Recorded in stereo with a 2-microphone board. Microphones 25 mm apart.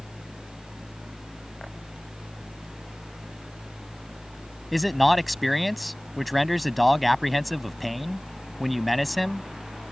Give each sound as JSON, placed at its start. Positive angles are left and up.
{"t": 4.7, "sound": "a man speaking", "side_deg": 0}